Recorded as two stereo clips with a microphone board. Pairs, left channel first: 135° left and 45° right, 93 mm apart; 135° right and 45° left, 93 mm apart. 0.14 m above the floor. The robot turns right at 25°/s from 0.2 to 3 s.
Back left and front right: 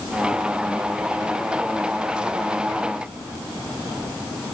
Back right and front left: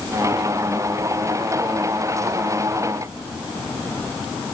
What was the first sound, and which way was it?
Only background noise.